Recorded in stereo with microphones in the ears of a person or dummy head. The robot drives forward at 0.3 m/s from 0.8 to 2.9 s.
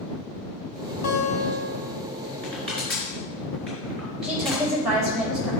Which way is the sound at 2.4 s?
5° left (ahead or behind).